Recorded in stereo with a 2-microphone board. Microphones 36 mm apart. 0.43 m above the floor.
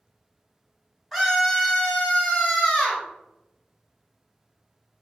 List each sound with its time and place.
1.1 s a scream: 5° left (ahead or behind), 0.9 m; by 3.0 s 50° left (ahead or behind), 1.3 m